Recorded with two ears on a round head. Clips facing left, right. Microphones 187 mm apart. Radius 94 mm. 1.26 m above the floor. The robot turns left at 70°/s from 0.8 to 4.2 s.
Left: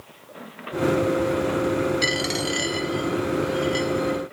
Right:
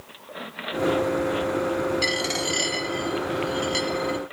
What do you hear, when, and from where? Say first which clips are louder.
2.0 s a dropped coin: left 2 dB; 20° left (ahead or behind), 0.8 m; by 4.2 s 20° right (ahead or behind), 0.8 m